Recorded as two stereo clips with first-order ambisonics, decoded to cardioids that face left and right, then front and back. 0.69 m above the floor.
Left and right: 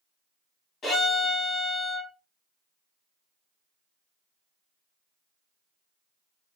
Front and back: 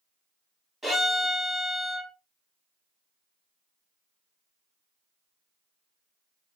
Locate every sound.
0.8 s a violin: 105° left, 1.2 m